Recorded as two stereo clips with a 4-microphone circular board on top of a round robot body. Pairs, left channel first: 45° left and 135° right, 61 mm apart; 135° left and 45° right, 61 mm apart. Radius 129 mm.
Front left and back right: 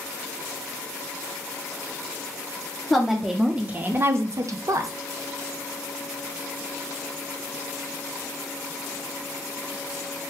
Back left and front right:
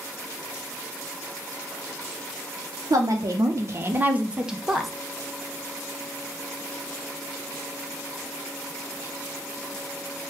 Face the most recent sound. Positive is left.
turn(degrees=-135)